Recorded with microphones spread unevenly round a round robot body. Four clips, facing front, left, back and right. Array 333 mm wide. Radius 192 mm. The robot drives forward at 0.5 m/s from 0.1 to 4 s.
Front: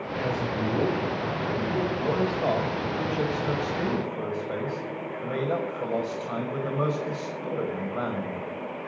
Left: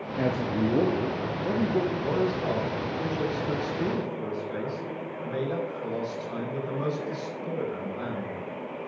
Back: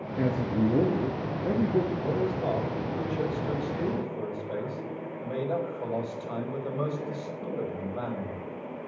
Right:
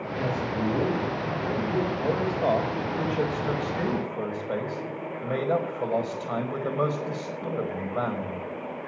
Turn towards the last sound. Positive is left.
turn(degrees=-60)